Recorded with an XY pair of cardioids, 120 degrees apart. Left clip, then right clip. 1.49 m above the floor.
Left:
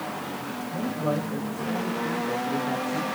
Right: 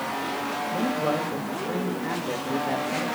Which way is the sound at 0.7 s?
25° right.